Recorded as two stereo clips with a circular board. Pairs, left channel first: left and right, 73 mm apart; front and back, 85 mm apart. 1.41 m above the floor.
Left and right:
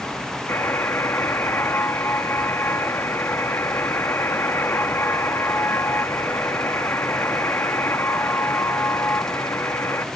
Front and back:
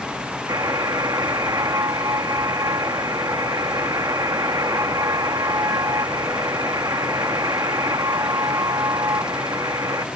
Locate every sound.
0.5 s a buzzer: 145° left